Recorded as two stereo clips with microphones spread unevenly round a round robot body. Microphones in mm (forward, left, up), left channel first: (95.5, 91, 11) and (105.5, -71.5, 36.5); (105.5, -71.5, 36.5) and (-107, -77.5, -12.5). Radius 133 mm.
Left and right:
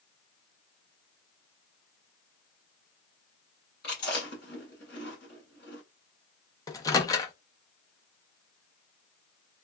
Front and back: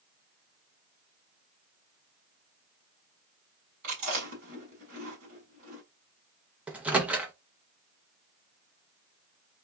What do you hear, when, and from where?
3.8 s chewing: 140° left, 1.6 m
6.7 s a microwave: 125° left, 0.6 m